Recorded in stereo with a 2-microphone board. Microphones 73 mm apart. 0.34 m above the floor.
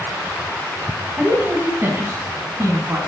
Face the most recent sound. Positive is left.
turn(degrees=-35)  # may be behind; listen again after turning